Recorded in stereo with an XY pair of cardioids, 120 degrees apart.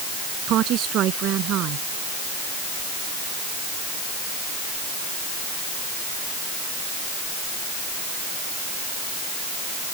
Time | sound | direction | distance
0.5 | a woman speaking | 65° right | ?